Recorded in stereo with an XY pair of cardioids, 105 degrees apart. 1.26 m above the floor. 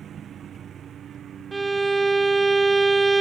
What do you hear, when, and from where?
0.0 s a lawn mower: 55° right; by 3.2 s 60° right
1.5 s a violin: 20° right